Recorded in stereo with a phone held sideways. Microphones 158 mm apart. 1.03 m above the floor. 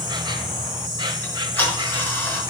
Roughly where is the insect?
Right.